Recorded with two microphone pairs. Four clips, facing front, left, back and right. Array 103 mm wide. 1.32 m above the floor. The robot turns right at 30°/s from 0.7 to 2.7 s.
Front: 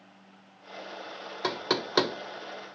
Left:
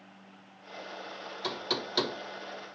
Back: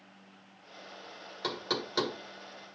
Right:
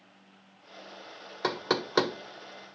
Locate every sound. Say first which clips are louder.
1.4 s knocking: right 6 dB, front 5 dB; 60° right, 0.7 m; by 2.8 s 20° right, 0.7 m